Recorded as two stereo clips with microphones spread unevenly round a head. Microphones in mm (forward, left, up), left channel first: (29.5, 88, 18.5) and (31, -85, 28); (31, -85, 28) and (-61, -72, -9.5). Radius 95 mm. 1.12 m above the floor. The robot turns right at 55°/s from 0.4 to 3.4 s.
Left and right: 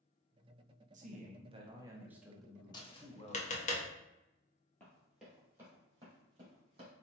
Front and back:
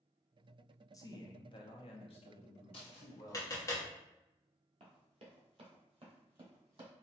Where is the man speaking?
75° right, 0.8 m; by 3.7 s 60° left, 0.8 m.